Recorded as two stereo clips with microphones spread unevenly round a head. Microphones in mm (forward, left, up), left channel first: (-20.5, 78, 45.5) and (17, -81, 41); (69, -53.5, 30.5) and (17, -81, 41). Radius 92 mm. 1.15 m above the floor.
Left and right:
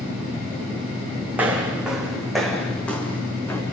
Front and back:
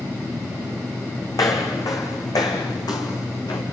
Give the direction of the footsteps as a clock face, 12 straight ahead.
12 o'clock.